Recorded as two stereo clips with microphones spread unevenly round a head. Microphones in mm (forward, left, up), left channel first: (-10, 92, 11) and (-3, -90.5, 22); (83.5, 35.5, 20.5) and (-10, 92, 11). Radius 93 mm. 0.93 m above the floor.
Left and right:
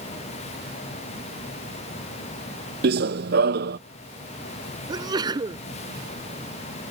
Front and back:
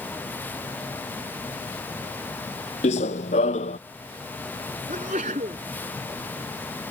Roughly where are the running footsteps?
Ahead right.